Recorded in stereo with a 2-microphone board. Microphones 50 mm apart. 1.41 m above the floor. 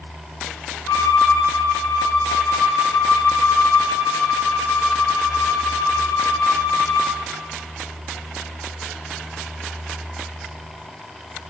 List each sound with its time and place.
0.9 s a violin: 75° left (ahead or behind), 1.6 m